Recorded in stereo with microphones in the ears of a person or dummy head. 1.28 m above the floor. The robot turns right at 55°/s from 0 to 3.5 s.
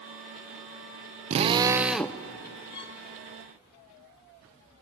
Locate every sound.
1.3 s a drill: 40° right, 0.5 m; by 2.2 s 10° left, 0.5 m
2.7 s a violin: 25° left (ahead or behind), 1.1 m; by 3.0 s 30° left (ahead or behind), 1.1 m